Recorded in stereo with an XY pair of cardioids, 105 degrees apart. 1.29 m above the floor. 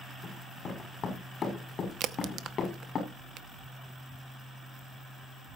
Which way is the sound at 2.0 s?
70° right.